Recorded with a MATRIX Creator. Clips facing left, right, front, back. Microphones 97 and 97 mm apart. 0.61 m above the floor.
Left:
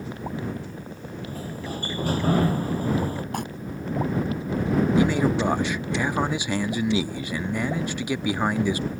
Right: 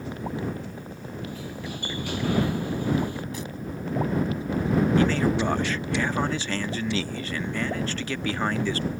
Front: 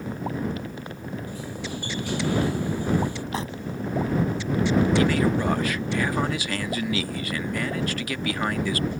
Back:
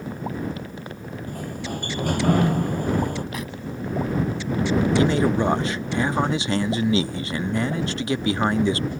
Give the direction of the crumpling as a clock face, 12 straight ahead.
10 o'clock.